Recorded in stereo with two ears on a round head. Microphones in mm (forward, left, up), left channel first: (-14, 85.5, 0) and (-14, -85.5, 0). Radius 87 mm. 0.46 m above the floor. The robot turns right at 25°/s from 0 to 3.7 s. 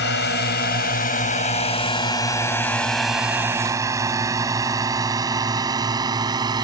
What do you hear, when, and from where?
0.0 s a drone: 60° left (ahead or behind); by 6.7 s 20° right (ahead or behind)